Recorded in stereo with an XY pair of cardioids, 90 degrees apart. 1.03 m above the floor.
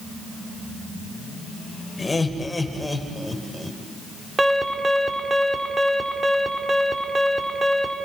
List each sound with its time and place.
2.0 s laughter: 25° left, 5.5 m; by 3.8 s 5° left, 5 m
4.4 s an alarm: 20° right, 4 m